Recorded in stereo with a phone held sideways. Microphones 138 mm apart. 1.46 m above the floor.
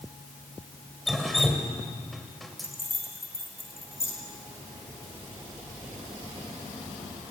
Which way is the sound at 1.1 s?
Centre (ahead or behind).